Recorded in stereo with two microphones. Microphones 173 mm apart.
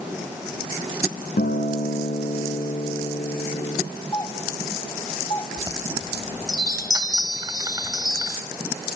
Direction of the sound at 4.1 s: 25° left (ahead or behind).